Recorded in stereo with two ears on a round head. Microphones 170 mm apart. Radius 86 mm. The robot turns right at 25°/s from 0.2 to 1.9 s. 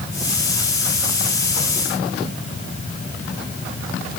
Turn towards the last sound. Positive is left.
No sound to turn to.